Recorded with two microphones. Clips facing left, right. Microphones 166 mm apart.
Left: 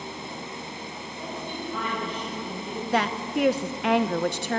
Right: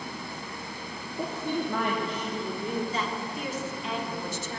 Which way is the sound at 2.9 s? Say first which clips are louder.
Left 7 dB; 70° left (ahead or behind).